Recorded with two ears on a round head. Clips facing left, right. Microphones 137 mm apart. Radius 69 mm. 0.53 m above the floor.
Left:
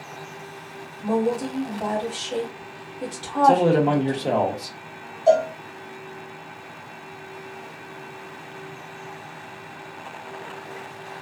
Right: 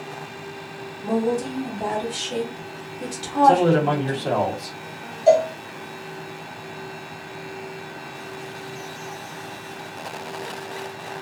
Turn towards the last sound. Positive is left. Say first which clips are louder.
# right 2 dB
turn(degrees=-10)  # may be behind; listen again after turning